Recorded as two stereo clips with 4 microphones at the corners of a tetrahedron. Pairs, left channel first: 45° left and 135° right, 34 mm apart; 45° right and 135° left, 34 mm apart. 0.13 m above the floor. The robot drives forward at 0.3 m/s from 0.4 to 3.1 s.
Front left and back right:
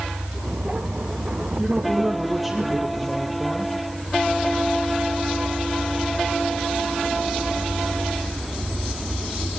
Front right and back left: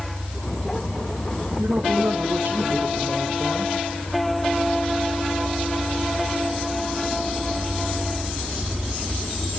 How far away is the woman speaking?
About 3 m.